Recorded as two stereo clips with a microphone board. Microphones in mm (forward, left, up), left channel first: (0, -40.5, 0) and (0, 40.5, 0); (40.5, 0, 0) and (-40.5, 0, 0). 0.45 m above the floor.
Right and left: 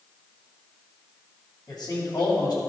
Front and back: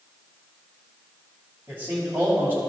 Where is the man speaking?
115° right, 2.5 m.